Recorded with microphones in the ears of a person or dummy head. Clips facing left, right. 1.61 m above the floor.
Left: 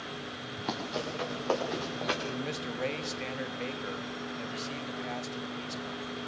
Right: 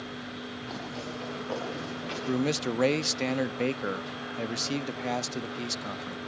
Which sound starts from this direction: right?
A man speaking, at 2.3 s.